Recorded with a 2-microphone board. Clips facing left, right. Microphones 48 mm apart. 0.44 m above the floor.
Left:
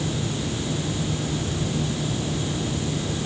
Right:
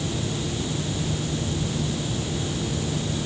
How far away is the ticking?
No ticking in this recording.